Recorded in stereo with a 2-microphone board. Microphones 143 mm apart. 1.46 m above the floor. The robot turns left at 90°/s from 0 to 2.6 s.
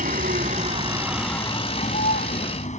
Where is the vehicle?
70° right; by 2.8 s 55° left.